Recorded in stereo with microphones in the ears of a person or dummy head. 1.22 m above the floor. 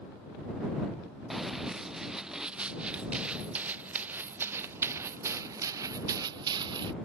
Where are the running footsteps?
Centre (ahead or behind); by 7.0 s 25° right (ahead or behind).